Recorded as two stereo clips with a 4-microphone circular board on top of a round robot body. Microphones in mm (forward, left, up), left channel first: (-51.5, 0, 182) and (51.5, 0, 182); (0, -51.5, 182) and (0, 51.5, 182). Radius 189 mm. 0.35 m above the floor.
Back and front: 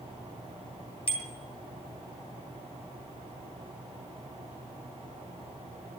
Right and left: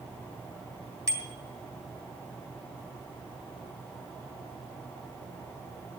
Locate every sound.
1.1 s a bicycle bell: 150° left, 3 m